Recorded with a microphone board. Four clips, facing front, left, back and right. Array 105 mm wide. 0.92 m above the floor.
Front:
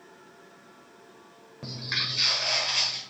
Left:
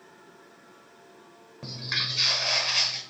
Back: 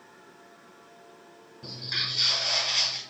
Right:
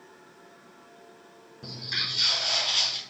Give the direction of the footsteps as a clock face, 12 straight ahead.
11 o'clock.